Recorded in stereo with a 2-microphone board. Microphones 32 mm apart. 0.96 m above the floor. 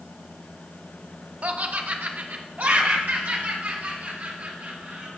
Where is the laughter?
45° right (ahead or behind), 0.6 m; by 5.1 s 75° right (ahead or behind), 3.5 m.